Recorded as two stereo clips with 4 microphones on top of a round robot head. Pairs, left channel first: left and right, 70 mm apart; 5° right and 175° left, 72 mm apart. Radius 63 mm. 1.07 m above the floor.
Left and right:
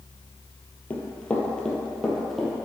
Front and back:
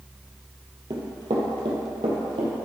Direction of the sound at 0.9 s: 155° left.